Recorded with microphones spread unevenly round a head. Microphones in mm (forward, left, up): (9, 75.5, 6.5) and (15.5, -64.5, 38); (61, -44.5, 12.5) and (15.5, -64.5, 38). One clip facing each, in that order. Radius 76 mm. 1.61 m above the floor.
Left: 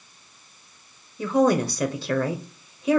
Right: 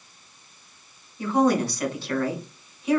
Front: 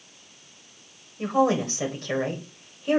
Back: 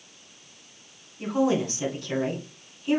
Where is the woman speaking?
90° left, 1.1 m.